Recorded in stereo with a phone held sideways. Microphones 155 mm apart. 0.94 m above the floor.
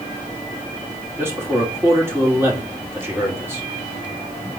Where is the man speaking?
15° right (ahead or behind), 2.5 m.